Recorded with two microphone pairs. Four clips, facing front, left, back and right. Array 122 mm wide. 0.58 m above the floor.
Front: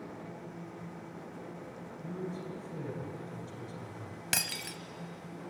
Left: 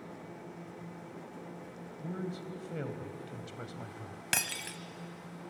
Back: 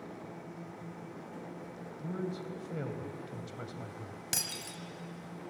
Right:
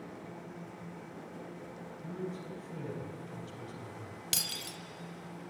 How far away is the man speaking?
About 3 m.